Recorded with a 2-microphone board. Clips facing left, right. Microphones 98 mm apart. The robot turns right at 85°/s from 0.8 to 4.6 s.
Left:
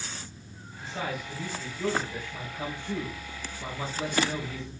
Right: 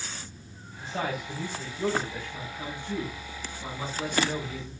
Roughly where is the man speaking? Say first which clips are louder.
Right 2 dB; right.